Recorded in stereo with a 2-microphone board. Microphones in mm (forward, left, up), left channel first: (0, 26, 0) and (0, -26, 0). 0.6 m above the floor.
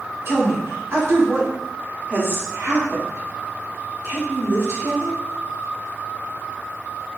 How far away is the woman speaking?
About 1.6 m.